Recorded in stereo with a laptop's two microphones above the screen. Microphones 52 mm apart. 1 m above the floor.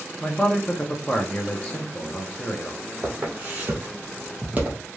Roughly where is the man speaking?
Centre.